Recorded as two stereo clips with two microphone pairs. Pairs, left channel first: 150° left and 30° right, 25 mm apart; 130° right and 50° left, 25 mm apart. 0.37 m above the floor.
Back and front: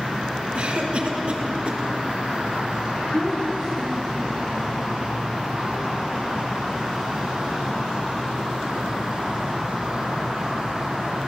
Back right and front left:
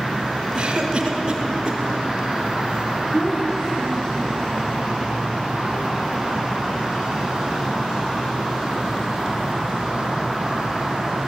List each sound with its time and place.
0.6 s a cough: 5° right, 5 m
3.1 s a child speaking: 75° right, 5.5 m